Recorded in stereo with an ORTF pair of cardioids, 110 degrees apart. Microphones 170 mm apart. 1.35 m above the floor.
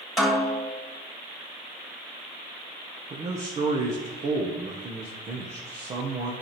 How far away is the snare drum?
About 2.5 m.